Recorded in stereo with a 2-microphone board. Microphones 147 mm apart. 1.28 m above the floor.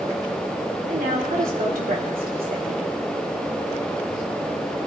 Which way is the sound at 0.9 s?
85° right.